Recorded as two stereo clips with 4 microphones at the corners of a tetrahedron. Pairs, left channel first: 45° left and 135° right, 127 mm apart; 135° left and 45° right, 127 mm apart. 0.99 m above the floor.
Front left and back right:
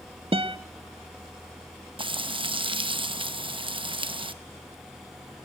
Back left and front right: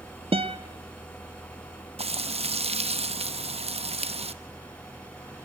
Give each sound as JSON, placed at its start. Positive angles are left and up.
{"t": 0.3, "sound": "a guitar", "azimuth_deg": -90, "distance_m": 0.9}
{"t": 2.0, "sound": "frying", "azimuth_deg": -85, "distance_m": 0.9}